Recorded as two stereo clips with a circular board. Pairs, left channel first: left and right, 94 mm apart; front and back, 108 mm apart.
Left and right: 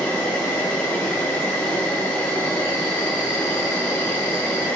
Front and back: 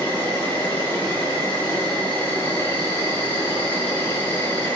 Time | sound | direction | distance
0.0 | an insect | 40° left | 1.1 m